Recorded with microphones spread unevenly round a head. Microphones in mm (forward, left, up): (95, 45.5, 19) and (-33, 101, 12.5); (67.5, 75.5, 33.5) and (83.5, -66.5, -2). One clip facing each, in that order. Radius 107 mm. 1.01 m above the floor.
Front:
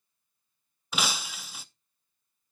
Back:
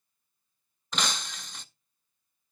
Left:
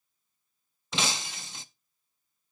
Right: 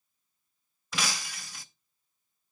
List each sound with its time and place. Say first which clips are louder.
0.9 s breaking glass: front 1 dB, left 2 dB; 55° left, 0.5 m